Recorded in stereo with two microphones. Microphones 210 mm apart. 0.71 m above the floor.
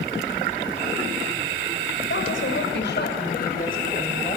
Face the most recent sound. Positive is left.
turn(degrees=35)  # may be behind; listen again after turning